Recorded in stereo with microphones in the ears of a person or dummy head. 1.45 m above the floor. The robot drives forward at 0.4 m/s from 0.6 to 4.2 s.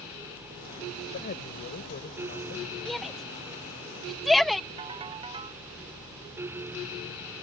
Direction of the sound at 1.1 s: 45° left (ahead or behind).